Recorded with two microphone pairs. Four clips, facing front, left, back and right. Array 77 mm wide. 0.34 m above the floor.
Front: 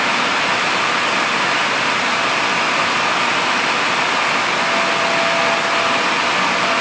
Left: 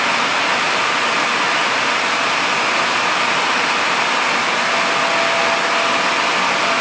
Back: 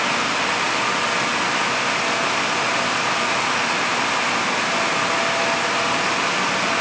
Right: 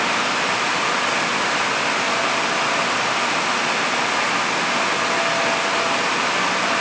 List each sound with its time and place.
Only background noise.